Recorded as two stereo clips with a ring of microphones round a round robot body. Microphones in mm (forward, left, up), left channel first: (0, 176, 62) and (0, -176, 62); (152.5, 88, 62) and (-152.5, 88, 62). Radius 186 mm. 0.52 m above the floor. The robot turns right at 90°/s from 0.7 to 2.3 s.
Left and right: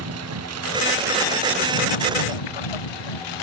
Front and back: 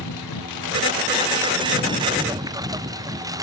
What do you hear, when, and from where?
0.0 s a lawn mower: 40° right; by 3.4 s 100° left